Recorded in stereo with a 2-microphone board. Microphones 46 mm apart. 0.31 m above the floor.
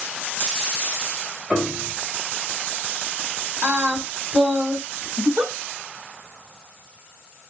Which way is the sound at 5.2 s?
50° right (ahead or behind).